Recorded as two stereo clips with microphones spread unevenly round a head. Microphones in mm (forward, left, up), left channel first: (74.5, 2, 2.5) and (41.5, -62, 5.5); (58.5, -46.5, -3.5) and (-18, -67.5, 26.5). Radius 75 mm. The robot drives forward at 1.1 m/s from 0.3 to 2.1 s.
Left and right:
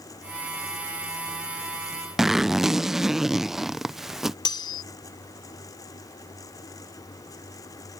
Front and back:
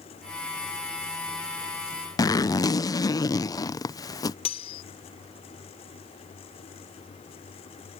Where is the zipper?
35° right.